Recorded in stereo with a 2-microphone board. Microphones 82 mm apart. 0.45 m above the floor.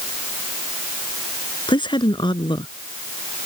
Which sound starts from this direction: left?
A woman speaking, at 1.7 s.